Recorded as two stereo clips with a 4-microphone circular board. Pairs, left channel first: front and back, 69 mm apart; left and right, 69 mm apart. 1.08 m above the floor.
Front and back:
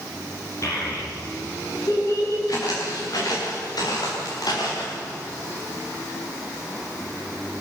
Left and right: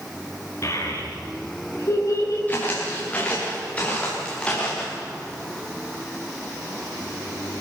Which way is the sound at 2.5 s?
25° left.